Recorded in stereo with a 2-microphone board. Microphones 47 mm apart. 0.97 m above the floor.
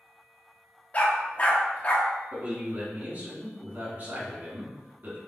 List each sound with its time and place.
0.9 s a dog barking: 35° left (ahead or behind), 0.6 m
2.3 s a man speaking: 45° right (ahead or behind), 1.8 m